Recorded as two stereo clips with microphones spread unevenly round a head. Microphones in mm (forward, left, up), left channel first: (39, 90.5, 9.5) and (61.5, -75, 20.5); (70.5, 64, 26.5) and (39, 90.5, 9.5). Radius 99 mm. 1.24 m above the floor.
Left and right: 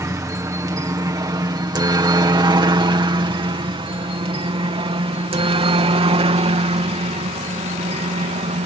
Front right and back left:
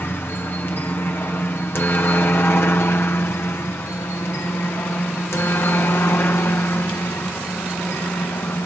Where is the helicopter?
25° right; by 8.7 s 45° right.